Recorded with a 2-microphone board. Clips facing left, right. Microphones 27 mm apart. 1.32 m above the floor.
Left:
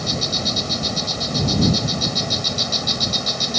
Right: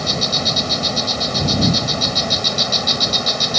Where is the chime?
I don't hear a chime.